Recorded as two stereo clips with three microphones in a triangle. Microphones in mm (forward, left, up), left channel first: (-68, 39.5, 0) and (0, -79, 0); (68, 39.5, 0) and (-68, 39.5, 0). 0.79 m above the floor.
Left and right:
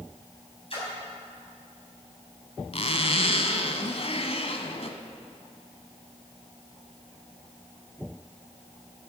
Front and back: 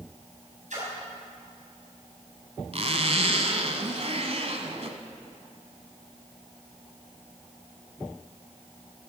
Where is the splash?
165° left, 6 m.